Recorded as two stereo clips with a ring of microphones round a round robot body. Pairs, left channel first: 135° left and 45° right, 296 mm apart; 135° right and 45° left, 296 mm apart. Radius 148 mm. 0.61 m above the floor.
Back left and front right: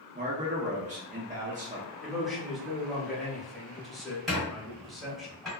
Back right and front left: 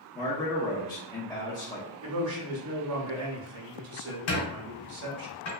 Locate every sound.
0.1 s a man speaking: 75° right, 0.6 m
2.0 s a man speaking: 45° left, 0.8 m
4.3 s a squeak: 135° right, 1.4 m